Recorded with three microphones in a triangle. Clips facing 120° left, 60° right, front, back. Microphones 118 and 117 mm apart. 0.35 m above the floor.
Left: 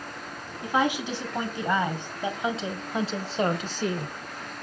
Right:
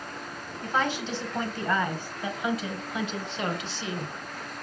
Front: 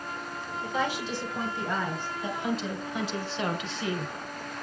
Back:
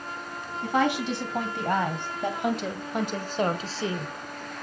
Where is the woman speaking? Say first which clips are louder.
Left 3 dB, back 6 dB; 160° right, 3 m; by 4.1 s 120° left, 1.4 m.